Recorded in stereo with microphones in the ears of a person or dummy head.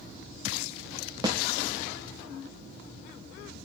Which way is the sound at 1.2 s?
15° right (ahead or behind).